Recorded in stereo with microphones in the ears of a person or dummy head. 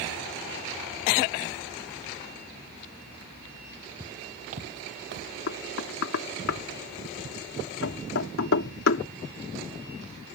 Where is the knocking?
70° left (ahead or behind).